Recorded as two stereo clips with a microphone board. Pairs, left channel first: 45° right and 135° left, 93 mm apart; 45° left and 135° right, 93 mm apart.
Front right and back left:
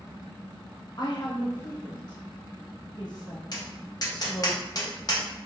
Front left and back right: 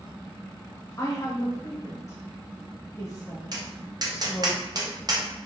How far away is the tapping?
About 0.7 m.